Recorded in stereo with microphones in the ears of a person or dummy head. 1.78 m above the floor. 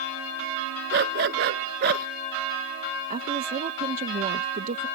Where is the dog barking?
60° right (ahead or behind); by 2.1 s 55° right (ahead or behind).